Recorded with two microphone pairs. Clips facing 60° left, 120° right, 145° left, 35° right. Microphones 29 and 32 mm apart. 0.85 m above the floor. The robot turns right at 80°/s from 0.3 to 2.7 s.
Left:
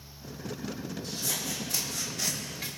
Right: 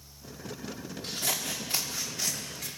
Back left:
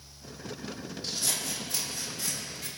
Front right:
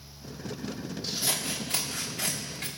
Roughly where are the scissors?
Behind right.